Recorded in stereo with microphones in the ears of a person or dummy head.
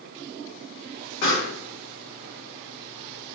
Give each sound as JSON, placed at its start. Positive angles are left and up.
{"t": 1.2, "sound": "a pop", "side_deg": 70, "distance_m": 1.3}